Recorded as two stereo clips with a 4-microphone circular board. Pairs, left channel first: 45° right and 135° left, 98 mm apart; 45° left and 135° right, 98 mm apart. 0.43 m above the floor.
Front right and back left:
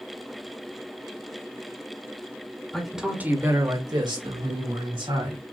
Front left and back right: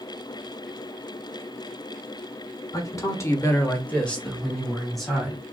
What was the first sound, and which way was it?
A man speaking, 35° left.